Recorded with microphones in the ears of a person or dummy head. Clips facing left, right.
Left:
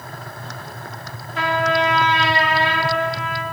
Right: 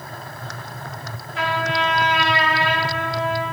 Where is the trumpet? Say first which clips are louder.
Left 4 dB; 35° left (ahead or behind), 1.0 m.